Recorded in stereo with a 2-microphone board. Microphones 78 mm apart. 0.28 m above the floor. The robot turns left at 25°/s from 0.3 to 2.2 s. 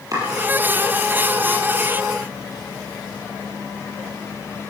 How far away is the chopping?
About 6 m.